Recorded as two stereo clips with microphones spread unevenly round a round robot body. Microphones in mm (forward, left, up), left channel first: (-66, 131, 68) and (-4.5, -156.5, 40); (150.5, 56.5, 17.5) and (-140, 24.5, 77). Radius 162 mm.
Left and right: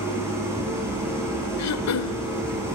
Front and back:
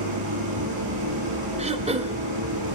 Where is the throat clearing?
115° left, 1.5 m.